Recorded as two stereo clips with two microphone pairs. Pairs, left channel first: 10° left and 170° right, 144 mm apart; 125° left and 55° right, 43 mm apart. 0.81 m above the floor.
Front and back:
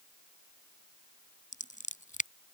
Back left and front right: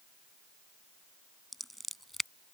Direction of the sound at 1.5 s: 40° left.